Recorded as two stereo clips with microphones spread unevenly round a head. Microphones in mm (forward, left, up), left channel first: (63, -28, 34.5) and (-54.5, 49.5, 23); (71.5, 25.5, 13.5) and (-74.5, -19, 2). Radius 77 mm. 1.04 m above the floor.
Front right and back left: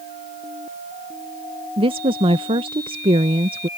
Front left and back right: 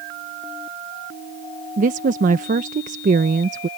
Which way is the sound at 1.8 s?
175° right.